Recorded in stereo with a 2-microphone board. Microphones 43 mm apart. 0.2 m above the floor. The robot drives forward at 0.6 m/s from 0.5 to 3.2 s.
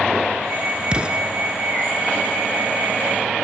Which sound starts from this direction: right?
An explosion, at 0.9 s.